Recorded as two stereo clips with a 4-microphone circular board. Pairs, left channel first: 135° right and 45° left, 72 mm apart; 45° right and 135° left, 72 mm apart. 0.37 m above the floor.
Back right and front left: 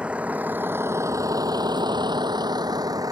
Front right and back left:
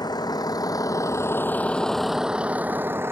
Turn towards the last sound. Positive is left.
turn(degrees=80)